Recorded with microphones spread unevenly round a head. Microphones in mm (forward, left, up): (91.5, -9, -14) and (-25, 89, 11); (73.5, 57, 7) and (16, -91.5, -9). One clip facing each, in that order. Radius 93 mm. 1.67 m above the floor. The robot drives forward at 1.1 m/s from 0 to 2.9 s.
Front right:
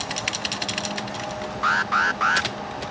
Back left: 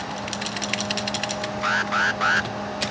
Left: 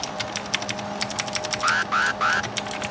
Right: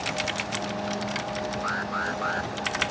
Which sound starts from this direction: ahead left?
An alarm, at 1.6 s.